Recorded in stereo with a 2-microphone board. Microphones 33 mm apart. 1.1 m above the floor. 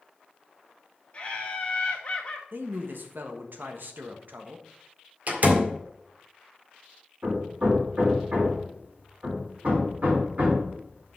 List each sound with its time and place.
1.1 s laughter: 45° left (ahead or behind), 2.0 m
2.5 s a man speaking: 70° right (ahead or behind), 1.2 m
5.3 s a door slam: 50° right (ahead or behind), 1.8 m
7.2 s hammering: 55° right (ahead or behind), 3.5 m